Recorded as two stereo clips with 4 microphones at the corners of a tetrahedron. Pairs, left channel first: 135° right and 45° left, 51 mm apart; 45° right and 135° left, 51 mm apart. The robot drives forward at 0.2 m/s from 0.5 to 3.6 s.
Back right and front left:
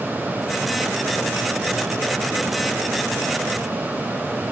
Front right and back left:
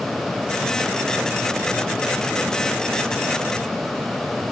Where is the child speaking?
No child speaking in this recording.